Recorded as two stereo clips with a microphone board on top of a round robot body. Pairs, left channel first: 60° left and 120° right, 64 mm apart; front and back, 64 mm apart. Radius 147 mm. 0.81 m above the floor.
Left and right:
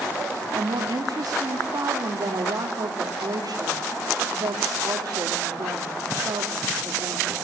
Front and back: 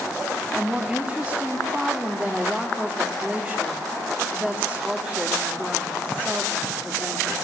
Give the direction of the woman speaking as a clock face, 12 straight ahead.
3 o'clock.